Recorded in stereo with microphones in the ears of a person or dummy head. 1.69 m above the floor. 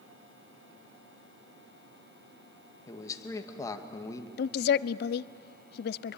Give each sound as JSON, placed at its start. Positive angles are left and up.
{"t": 2.9, "sound": "a man speaking", "side_deg": 20, "distance_m": 2.0}
{"t": 4.4, "sound": "a woman speaking", "side_deg": 60, "distance_m": 0.6}